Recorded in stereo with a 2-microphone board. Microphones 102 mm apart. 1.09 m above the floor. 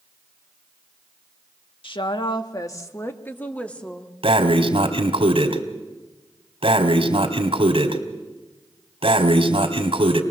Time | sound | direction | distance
1.8 | a woman speaking | 55° left (ahead or behind) | 1.4 m
4.2 | breathing | 65° right (ahead or behind) | 2.0 m